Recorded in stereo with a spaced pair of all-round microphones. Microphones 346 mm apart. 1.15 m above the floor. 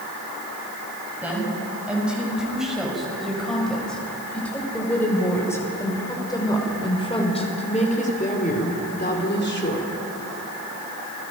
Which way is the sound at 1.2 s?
5° right (ahead or behind).